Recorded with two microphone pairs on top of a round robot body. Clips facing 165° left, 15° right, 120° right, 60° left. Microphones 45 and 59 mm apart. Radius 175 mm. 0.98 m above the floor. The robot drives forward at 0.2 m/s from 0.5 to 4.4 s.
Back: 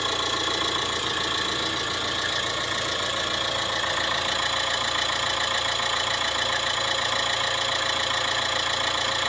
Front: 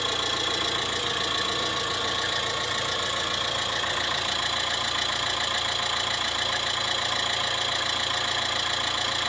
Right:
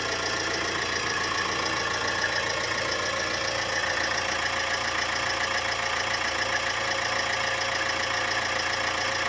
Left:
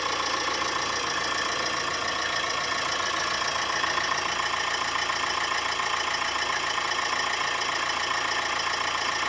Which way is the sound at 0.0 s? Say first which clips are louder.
Back 1 dB, left 1 dB; 95° right.